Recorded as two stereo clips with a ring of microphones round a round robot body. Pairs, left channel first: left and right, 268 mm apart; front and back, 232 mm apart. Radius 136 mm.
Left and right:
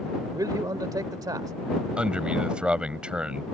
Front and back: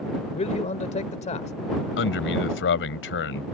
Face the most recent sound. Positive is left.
turn(degrees=-5)